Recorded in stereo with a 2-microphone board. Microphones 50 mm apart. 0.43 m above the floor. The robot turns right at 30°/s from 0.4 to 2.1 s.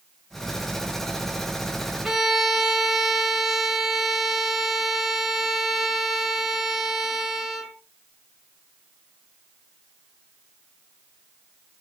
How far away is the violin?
About 1.8 m.